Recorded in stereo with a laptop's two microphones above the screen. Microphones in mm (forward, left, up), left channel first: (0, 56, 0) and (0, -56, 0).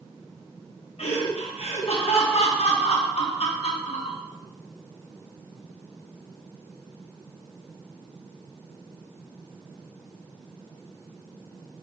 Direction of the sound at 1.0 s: 70° left (ahead or behind).